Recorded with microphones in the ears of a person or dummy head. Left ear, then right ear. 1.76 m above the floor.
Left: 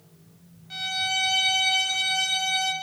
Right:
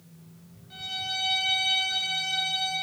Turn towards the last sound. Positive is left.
turn(degrees=45)  # may be behind; listen again after turning